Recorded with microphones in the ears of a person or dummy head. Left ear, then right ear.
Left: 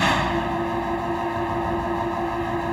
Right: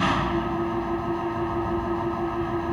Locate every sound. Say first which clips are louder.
0.0 s an engine running: left 3 dB; 25° left (ahead or behind)